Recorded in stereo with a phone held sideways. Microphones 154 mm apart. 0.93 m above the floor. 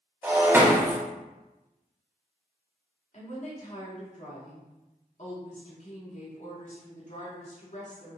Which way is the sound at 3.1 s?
50° left (ahead or behind).